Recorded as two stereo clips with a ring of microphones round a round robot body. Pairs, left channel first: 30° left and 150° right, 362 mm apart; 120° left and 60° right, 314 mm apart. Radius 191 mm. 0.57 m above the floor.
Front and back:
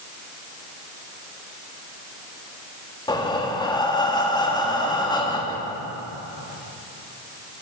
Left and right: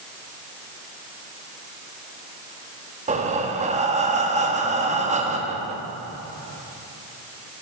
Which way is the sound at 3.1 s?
30° right.